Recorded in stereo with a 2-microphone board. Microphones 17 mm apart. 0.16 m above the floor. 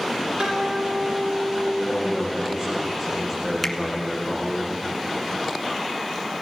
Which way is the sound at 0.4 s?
85° right.